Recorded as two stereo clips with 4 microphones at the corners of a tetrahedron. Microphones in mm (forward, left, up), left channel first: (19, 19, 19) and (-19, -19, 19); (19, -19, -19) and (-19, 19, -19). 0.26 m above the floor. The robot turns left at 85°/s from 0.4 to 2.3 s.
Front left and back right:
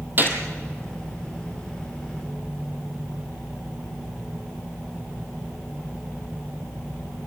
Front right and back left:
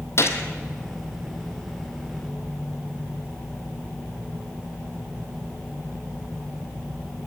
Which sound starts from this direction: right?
A gunshot, at 0.2 s.